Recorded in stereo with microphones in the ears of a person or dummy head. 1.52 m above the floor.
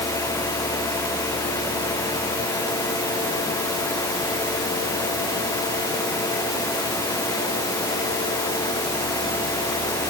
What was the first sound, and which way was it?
Only background noise.